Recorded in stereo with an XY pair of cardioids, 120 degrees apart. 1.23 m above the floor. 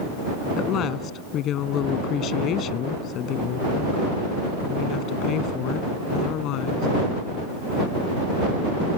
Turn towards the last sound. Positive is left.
turn(degrees=75)